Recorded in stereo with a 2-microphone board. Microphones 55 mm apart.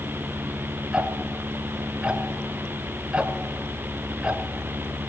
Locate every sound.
0.9 s ticking: 20° right (ahead or behind), 1.0 m